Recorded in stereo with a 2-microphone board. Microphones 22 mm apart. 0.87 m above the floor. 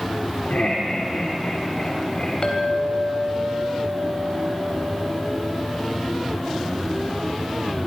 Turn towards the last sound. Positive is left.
turn(degrees=55)  # may be behind; listen again after turning